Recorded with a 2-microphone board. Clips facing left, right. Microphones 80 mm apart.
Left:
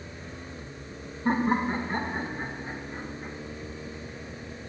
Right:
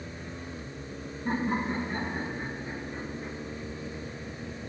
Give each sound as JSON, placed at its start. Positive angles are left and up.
{"t": 1.2, "sound": "laughter", "side_deg": 55, "distance_m": 1.7}